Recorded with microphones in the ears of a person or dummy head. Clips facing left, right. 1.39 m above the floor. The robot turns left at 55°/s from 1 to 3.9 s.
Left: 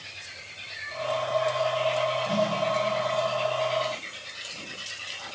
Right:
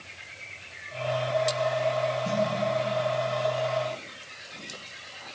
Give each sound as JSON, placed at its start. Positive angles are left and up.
{"t": 2.2, "sound": "a snare drum", "side_deg": -55, "distance_m": 9.5}